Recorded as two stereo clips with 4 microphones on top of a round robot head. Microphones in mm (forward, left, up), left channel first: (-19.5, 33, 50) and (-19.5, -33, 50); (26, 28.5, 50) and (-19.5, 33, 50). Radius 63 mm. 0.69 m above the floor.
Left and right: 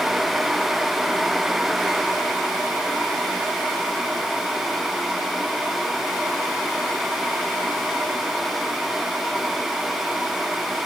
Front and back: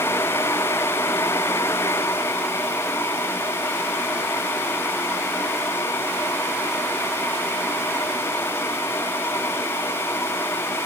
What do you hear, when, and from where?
Only background noise.